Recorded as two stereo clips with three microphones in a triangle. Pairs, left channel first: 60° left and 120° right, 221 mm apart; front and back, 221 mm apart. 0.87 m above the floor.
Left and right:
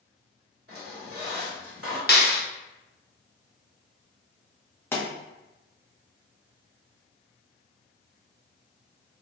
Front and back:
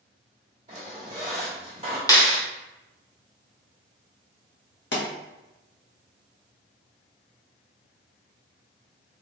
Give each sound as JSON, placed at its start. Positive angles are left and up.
{"t": 0.7, "sound": "a squeak", "azimuth_deg": -115, "distance_m": 2.0}
{"t": 2.1, "sound": "a clap", "azimuth_deg": 70, "distance_m": 0.9}
{"t": 4.9, "sound": "a pop", "azimuth_deg": -20, "distance_m": 1.2}